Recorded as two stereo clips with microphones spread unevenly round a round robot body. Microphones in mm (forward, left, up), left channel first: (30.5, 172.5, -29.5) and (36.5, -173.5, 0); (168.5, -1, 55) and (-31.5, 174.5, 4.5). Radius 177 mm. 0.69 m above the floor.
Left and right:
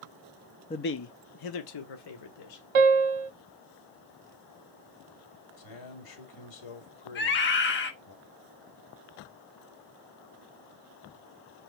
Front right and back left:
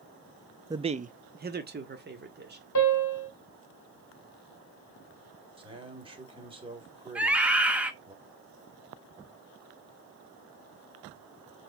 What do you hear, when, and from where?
0.7 s a man speaking: 125° left, 0.5 m; by 2.6 s 90° left, 2 m
2.8 s a piano: 95° right, 0.9 m
5.6 s a man speaking: 70° left, 3 m
7.2 s a scream: 70° left, 1.2 m